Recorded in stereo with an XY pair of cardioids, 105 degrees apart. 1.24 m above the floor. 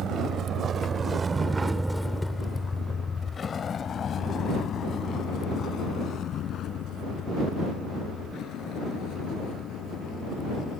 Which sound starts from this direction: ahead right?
A vehicle, at 0.0 s.